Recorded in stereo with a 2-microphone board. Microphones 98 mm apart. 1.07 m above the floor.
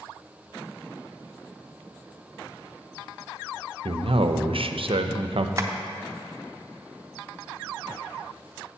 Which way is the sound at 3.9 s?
70° right (ahead or behind).